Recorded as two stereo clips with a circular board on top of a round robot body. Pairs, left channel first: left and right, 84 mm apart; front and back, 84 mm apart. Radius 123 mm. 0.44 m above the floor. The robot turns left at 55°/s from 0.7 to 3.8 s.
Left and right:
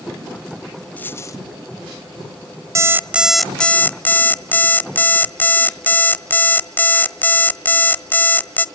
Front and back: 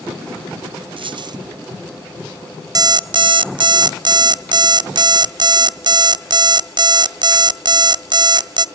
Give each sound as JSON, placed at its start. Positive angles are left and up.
{"t": 1.0, "sound": "a dropped coin", "azimuth_deg": 165, "distance_m": 0.9}
{"t": 2.8, "sound": "an alarm clock", "azimuth_deg": -145, "distance_m": 0.7}